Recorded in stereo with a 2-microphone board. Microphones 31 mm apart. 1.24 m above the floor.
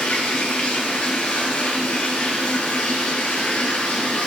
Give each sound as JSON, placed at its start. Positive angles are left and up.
{"t": 0.0, "sound": "running water", "side_deg": 85, "distance_m": 8.5}